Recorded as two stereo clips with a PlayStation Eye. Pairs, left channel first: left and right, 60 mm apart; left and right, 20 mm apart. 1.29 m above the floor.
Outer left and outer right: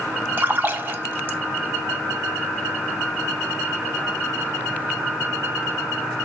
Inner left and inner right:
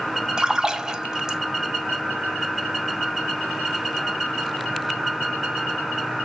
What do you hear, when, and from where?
0.4 s a splash: 30° right (ahead or behind), 1.0 m